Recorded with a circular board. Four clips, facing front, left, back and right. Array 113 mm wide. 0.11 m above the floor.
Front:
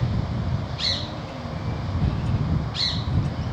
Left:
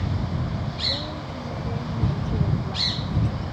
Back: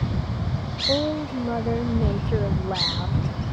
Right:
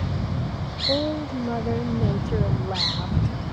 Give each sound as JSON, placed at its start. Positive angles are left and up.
{"t": 0.9, "sound": "a woman speaking", "azimuth_deg": -145}